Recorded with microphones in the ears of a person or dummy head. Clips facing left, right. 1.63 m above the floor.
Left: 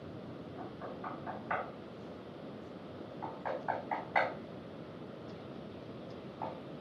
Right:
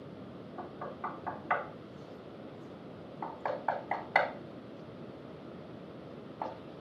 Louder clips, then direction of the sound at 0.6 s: Right 3 dB; 70° right (ahead or behind).